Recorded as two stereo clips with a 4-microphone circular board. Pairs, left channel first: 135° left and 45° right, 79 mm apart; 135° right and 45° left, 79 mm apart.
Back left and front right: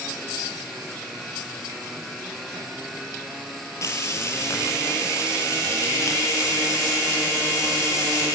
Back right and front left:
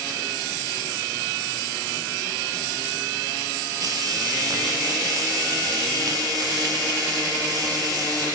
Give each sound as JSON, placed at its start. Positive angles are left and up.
{"t": 3.8, "sound": "frying", "azimuth_deg": 85, "distance_m": 4.5}